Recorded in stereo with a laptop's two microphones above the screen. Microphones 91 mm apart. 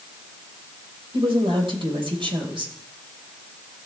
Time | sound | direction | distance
1.1 | a woman speaking | 70° right (ahead or behind) | 3 m